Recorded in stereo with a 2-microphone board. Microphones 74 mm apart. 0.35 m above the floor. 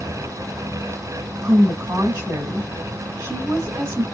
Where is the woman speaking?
35° right (ahead or behind), 2 m.